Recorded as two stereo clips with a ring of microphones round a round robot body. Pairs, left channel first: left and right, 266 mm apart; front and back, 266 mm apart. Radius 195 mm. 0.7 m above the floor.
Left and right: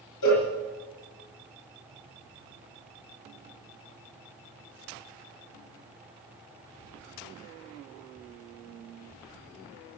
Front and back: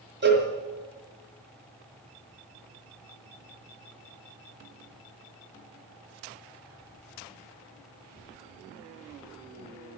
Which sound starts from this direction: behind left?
A cowbell, at 0.2 s.